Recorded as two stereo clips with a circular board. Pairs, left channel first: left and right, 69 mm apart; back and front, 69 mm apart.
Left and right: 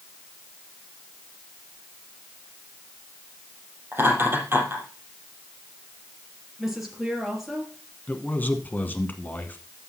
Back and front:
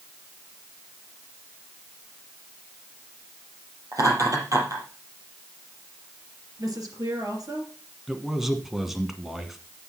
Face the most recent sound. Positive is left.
turn(degrees=85)